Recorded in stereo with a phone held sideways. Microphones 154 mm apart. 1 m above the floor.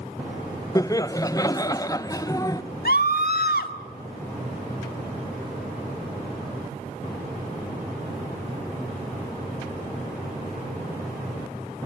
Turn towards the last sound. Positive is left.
turn(degrees=80)